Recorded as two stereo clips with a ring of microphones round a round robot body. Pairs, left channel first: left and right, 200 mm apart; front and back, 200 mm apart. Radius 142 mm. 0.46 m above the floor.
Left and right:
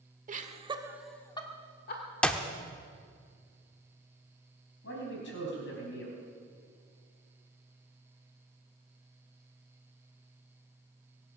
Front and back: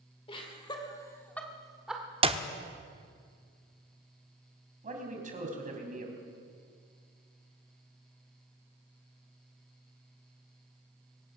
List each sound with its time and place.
0.3 s laughter: 60° right, 1.7 m; by 2.0 s 95° left, 1.8 m
2.2 s a clap: 170° left, 0.7 m
4.8 s a man speaking: 130° left, 3.5 m